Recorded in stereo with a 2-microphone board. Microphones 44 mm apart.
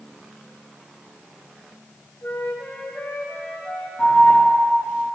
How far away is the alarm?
About 2.5 m.